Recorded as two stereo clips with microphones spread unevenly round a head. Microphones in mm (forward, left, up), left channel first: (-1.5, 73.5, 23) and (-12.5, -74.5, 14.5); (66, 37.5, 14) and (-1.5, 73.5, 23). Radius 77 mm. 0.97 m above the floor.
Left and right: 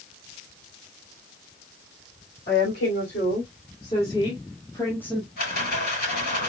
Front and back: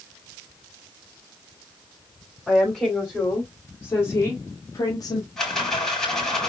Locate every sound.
2.5 s a woman speaking: 50° left, 3.5 m; by 5.3 s straight ahead, 1.7 m
5.4 s a rattle: 55° left, 4 m